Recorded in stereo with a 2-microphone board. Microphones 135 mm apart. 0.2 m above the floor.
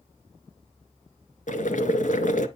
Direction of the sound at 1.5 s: 70° left (ahead or behind).